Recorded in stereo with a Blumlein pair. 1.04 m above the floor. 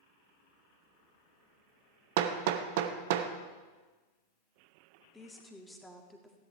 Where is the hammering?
50° right, 1.0 m.